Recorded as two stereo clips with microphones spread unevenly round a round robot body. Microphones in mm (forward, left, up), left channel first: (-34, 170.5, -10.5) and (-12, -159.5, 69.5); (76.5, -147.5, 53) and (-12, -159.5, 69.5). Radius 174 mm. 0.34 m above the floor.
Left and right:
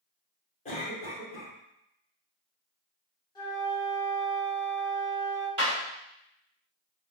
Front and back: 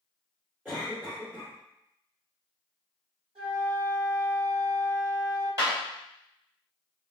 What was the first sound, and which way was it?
A cough, 100° left.